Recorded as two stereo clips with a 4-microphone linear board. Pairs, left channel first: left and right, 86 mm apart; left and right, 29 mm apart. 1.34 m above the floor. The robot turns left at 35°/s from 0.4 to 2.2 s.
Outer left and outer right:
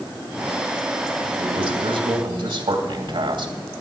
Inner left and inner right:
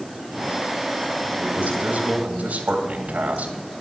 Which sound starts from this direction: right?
A man speaking, at 1.4 s.